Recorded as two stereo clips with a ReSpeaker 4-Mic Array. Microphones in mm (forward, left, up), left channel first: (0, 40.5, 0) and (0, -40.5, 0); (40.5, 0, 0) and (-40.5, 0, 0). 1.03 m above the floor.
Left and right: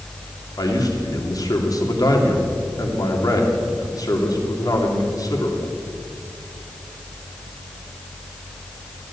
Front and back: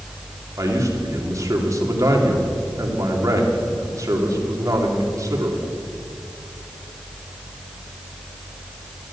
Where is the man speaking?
130° left, 2.5 m.